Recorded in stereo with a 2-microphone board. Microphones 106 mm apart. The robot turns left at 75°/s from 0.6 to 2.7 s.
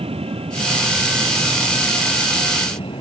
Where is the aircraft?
65° right (ahead or behind); by 3.0 s 55° left (ahead or behind).